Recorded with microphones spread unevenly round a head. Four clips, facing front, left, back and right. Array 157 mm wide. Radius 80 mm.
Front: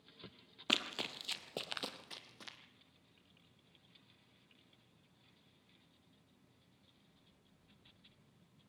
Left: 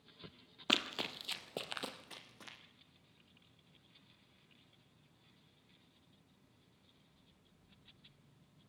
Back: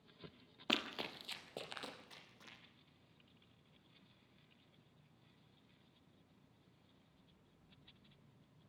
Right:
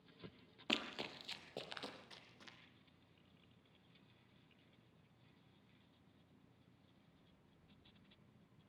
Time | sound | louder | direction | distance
0.7 | running footsteps | left 5 dB, even | 100° left | 1.8 m